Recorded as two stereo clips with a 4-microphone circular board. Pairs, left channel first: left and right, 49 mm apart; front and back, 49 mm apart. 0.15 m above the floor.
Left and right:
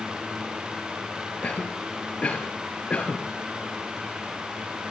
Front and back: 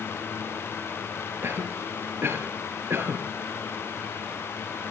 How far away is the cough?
About 3.5 m.